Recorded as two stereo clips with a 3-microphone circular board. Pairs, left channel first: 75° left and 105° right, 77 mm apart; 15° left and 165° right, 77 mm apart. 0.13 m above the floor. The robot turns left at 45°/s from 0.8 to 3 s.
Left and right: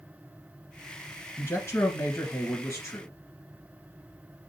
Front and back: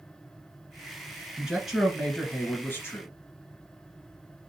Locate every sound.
1.4 s a man speaking: 120° left, 1.7 m; by 3.1 s 50° left, 1.7 m